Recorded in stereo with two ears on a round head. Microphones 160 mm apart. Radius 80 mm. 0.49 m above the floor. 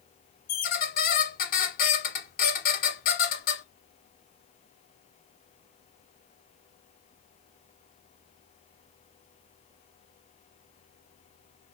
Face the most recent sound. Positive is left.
turn(degrees=55)  # may be behind; listen again after turning